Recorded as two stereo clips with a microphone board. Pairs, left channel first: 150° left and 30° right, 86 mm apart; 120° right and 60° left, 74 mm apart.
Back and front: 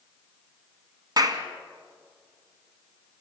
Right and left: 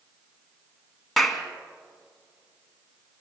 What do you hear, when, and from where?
1.2 s a clap: 30° right, 1.7 m